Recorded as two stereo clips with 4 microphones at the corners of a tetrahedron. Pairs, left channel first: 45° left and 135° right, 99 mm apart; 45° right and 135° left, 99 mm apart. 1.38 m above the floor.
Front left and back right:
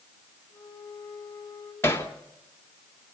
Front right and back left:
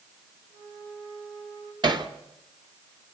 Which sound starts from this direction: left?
Hammering, at 1.8 s.